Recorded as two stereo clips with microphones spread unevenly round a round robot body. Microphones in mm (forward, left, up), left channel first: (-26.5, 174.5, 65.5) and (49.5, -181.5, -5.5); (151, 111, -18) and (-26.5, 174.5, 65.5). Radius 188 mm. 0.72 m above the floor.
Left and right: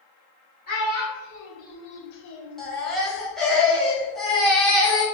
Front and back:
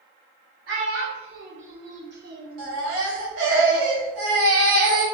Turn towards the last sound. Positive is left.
turn(degrees=-165)